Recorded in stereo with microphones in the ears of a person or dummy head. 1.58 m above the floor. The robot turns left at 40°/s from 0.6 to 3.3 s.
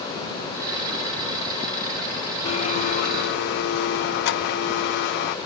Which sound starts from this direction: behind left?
A blender, at 2.5 s.